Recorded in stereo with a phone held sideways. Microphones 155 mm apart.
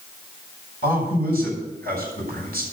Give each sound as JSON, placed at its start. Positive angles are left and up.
{"t": 0.8, "sound": "a man speaking", "side_deg": -80, "distance_m": 6.5}